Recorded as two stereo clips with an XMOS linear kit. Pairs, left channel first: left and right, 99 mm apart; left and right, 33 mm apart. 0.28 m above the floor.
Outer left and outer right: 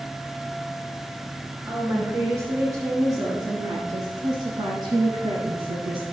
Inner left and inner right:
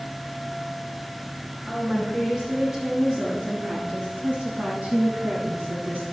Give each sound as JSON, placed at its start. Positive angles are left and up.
{"t": 1.7, "sound": "a woman speaking", "side_deg": -20, "distance_m": 3.5}